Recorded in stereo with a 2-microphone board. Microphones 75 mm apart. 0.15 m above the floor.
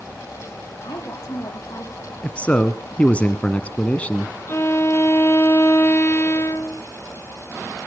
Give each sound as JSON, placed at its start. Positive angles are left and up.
{"t": 0.8, "sound": "a woman speaking", "side_deg": 60, "distance_m": 5.5}
{"t": 2.2, "sound": "a man speaking", "side_deg": 20, "distance_m": 1.2}
{"t": 4.5, "sound": "a violin", "side_deg": 35, "distance_m": 1.3}